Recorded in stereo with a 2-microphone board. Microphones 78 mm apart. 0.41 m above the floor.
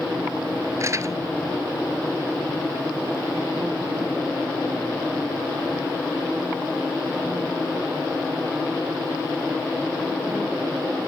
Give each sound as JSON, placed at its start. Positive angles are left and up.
{"t": 0.8, "sound": "crumpling", "side_deg": -40}